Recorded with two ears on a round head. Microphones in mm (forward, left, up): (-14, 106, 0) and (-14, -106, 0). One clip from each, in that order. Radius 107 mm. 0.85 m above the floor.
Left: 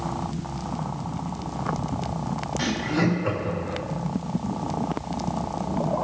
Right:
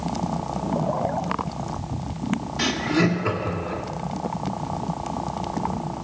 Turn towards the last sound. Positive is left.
turn(degrees=-20)  # may be behind; listen again after turning